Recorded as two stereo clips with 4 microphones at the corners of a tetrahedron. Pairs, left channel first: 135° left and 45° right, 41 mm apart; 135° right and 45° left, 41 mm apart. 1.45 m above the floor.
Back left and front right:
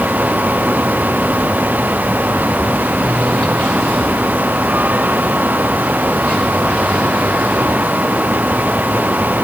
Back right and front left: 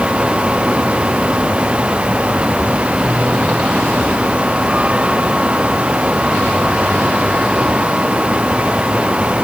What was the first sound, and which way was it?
Only background noise.